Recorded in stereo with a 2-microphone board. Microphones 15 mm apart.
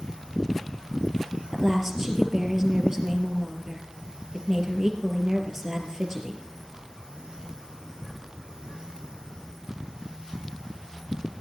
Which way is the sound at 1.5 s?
25° right (ahead or behind).